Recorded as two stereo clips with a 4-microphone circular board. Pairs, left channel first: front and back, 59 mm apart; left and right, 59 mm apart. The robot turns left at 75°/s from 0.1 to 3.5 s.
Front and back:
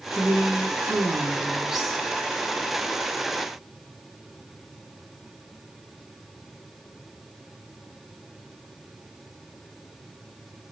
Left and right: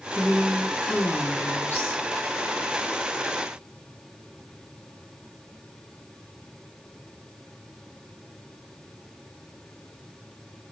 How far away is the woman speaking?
About 1.0 m.